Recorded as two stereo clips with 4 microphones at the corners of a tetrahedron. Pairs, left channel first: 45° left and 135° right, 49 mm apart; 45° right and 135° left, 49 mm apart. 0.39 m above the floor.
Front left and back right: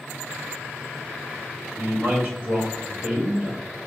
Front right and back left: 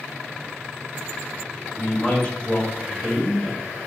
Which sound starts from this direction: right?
A man speaking, at 1.8 s.